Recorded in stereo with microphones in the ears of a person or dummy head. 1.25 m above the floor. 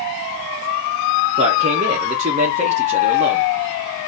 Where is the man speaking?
30° right (ahead or behind), 0.6 m.